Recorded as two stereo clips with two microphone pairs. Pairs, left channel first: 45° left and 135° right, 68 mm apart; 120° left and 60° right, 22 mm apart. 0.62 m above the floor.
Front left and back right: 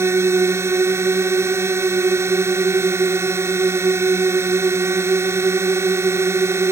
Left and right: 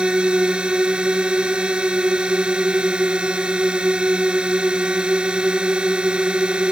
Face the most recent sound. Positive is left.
turn(degrees=-85)